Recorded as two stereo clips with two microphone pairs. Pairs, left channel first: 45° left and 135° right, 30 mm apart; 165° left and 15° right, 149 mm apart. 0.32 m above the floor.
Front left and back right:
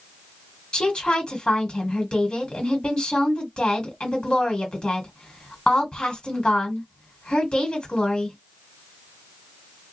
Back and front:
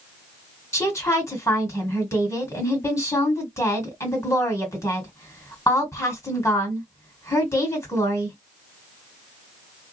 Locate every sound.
0.7 s a woman speaking: 100° left, 1.7 m